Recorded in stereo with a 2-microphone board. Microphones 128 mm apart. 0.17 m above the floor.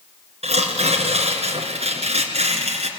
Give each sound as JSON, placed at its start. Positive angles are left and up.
{"t": 0.4, "sound": "tearing paper", "side_deg": -55, "distance_m": 3.0}